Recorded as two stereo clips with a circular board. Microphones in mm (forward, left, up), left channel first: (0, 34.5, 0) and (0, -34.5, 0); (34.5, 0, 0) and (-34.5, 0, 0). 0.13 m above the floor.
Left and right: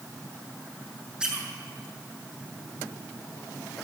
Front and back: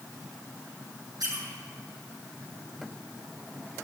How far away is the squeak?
About 4 m.